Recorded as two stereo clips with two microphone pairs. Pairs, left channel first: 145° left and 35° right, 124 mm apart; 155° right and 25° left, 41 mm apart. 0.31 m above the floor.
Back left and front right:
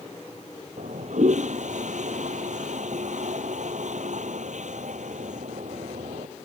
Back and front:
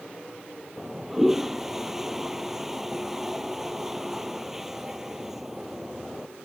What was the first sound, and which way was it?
A toilet flushing, 55° right.